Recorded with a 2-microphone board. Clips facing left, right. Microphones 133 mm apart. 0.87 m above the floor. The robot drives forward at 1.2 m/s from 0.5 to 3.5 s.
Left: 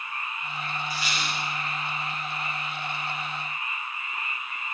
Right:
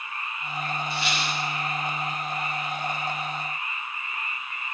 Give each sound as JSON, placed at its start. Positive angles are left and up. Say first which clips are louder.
{"t": 0.9, "sound": "a squeak", "louder": "right 3 dB", "side_deg": -20, "distance_m": 8.5}